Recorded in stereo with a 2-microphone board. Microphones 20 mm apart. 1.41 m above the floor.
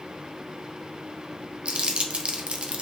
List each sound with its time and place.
1.6 s crumpling: 55° right (ahead or behind), 0.7 m